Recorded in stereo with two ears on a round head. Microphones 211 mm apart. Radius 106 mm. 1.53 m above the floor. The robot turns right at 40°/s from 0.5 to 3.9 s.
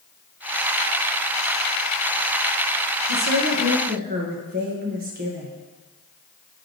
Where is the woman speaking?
75° right, 1.6 m; by 5.5 s 40° right, 1.6 m.